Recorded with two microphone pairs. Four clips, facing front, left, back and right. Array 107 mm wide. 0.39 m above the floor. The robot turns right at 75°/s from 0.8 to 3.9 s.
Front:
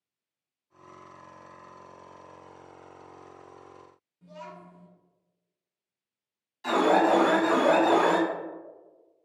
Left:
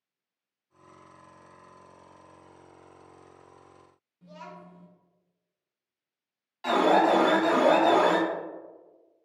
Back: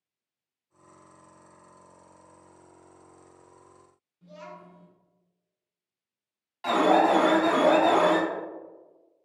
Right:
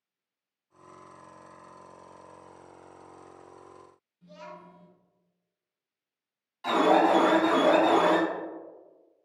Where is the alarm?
155° left, 1.3 m.